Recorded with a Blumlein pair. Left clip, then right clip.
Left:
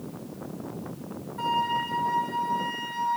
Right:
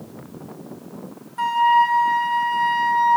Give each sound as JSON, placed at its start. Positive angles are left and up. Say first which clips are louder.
{"t": 1.4, "sound": "a flute", "louder": "right 10 dB", "azimuth_deg": -65, "distance_m": 0.8}